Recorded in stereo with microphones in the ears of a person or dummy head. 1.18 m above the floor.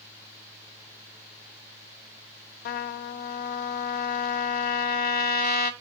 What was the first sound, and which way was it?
A trumpet, 55° left (ahead or behind).